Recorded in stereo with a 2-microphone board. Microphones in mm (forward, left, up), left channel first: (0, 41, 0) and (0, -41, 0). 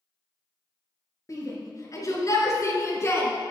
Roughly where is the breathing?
No breathing in this recording.